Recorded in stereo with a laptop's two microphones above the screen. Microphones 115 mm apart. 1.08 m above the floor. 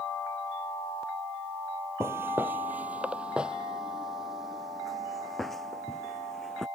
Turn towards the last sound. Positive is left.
turn(degrees=5)  # may be behind; listen again after turning